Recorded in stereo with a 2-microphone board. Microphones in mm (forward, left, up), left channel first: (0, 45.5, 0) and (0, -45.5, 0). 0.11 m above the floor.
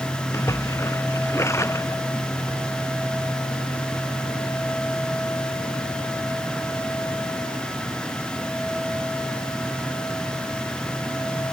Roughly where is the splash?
Left.